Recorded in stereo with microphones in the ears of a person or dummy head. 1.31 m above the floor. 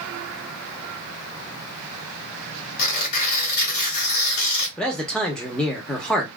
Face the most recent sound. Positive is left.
turn(degrees=-5)  # may be behind; listen again after turning